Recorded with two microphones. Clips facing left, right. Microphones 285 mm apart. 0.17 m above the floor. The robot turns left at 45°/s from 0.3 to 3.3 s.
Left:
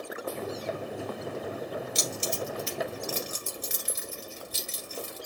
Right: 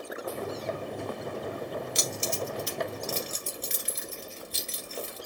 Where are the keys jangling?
50° left (ahead or behind), 1.5 m; by 5.2 s 5° left (ahead or behind), 1.5 m.